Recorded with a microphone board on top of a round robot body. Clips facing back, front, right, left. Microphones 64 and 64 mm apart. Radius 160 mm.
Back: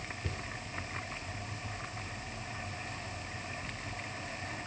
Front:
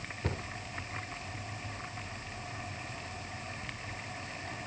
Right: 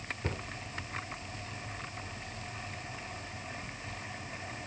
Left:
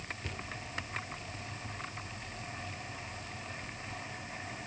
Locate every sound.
0.2 s a cupboard door: 35° right